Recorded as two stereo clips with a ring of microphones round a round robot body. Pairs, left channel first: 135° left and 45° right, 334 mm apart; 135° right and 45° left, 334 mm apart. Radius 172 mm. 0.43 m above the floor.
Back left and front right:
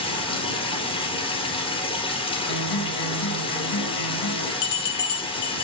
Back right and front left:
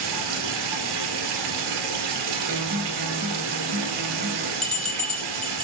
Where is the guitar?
110° left, 2.5 m.